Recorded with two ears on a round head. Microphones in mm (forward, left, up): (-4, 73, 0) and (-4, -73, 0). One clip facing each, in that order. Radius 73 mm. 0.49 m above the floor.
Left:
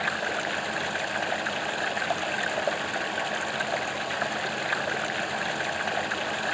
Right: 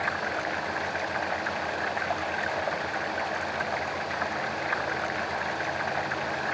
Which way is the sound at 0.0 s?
35° left (ahead or behind).